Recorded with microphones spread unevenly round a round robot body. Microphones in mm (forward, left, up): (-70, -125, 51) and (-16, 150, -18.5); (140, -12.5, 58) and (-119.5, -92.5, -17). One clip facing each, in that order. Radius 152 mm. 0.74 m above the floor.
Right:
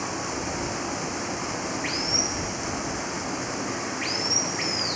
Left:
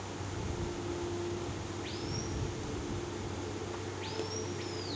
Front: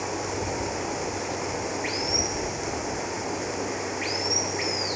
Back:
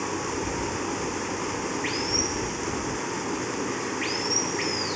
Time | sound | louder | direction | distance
0.0 | running water | right 9 dB, back 1 dB | 95° right | ?